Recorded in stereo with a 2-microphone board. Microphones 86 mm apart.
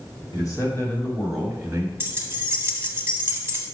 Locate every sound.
0.3 s a man speaking: 45° left (ahead or behind), 2 m; by 1.9 s 30° right (ahead or behind), 1.8 m
2.0 s keys jangling: 30° right (ahead or behind), 0.9 m